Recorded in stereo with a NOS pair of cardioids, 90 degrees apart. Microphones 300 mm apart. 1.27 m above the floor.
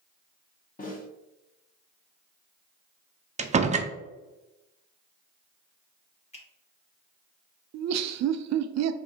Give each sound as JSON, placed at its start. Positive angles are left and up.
{"t": 0.8, "sound": "a snare drum", "azimuth_deg": 30, "distance_m": 1.4}
{"t": 3.4, "sound": "a door slam", "azimuth_deg": -25, "distance_m": 0.5}
{"t": 6.3, "sound": "a finger snap", "azimuth_deg": 20, "distance_m": 1.6}
{"t": 7.7, "sound": "laughter", "azimuth_deg": -65, "distance_m": 0.5}